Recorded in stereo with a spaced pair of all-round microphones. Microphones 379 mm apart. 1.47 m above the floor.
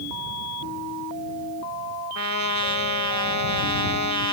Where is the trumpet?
45° left (ahead or behind).